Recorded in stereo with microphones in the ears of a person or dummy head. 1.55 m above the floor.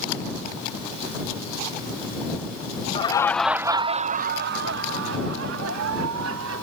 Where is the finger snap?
No finger snap in this recording.